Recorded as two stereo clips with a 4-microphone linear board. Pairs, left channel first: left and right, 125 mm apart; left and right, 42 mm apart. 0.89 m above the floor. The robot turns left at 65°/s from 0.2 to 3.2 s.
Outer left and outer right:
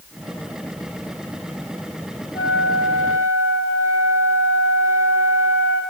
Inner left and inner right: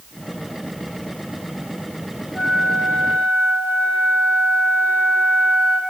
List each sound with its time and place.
2.3 s a flute: 145° left, 5.5 m; by 5.8 s 90° left, 5.5 m